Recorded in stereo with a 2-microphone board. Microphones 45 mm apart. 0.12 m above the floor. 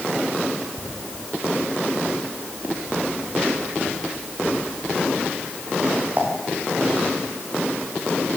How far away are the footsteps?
About 5 m.